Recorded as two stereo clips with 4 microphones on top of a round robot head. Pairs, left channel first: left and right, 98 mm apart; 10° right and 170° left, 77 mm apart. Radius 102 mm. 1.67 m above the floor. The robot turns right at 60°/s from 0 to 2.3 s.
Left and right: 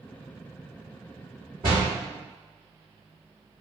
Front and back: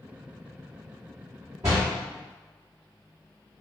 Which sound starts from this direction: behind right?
A door slam, at 1.6 s.